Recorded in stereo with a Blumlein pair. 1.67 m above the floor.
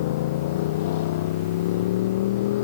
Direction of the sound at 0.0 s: 55° left.